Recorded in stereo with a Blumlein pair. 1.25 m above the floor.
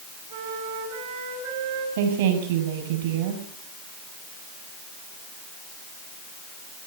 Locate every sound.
0.3 s a flute: 55° right, 5.5 m
2.0 s a woman speaking: 55° right, 7.5 m